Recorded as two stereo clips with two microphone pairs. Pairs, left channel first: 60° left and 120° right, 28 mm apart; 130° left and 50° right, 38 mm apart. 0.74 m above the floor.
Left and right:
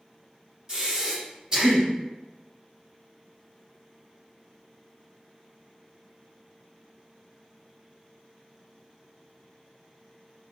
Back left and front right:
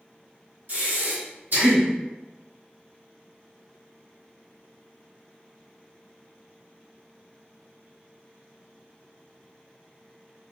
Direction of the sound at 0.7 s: 60° right.